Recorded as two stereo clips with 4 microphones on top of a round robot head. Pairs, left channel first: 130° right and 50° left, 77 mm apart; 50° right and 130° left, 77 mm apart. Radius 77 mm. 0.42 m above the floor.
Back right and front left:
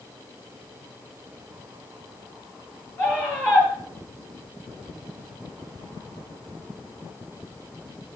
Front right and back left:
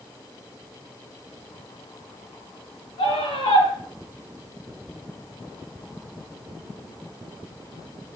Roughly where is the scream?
Ahead right.